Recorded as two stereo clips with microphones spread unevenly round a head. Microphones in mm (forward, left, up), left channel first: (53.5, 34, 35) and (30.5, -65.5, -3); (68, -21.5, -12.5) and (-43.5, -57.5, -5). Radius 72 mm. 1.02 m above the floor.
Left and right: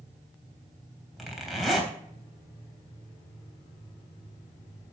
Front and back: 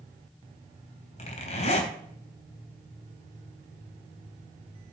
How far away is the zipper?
About 3.5 m.